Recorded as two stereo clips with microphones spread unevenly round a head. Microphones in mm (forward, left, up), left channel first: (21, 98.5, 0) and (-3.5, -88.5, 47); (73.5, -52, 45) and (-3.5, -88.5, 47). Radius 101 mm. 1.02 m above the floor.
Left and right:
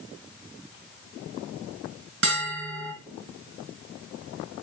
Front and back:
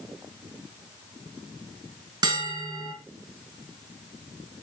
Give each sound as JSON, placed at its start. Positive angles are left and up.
{"t": 2.2, "sound": "a bell", "azimuth_deg": -115, "distance_m": 3.5}